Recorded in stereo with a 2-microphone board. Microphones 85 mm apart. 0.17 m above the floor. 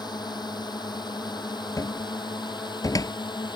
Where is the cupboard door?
45° left (ahead or behind).